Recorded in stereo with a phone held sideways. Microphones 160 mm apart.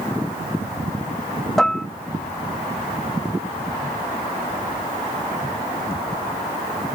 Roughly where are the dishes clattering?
Centre.